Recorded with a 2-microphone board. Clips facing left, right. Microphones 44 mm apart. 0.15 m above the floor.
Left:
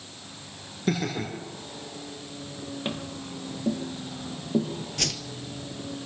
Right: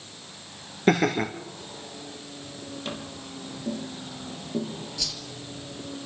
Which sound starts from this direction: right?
Laughter, at 0.9 s.